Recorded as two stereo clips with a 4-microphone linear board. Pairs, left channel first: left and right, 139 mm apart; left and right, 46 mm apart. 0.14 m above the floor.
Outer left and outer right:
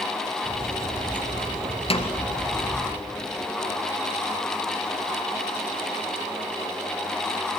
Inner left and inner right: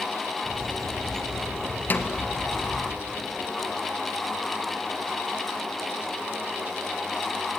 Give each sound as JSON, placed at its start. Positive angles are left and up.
{"t": 0.4, "sound": "a bird", "side_deg": -75, "distance_m": 3.0}
{"t": 1.9, "sound": "a snare drum", "side_deg": 45, "distance_m": 1.8}